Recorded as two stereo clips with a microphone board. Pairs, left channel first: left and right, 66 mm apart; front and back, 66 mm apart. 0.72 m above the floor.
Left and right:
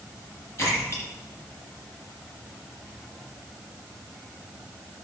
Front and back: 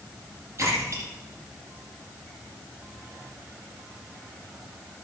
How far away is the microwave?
I don't hear a microwave.